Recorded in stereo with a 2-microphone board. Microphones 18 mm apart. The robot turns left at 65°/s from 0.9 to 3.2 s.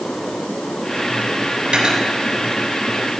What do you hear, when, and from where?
1.7 s cutlery clinking: 80° right, 3.5 m; by 2.0 s 70° right (ahead or behind), 3.5 m